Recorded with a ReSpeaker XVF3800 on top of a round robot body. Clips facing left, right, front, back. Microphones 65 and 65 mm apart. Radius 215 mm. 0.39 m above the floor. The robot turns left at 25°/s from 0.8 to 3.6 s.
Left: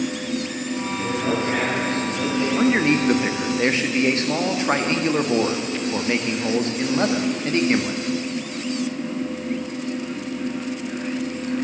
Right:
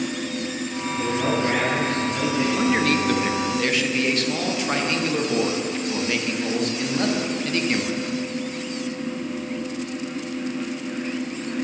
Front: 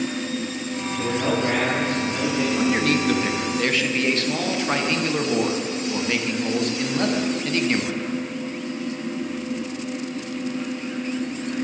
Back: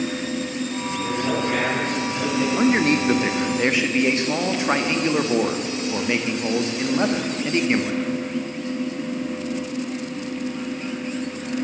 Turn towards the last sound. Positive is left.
turn(degrees=125)